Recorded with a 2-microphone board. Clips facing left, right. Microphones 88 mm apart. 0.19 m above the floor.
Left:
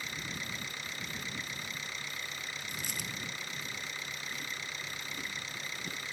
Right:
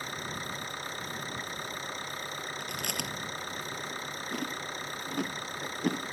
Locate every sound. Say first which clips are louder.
0.0 s an engine running: right 4 dB; 40° right (ahead or behind)
2.6 s chewing: right 5 dB; 70° right (ahead or behind)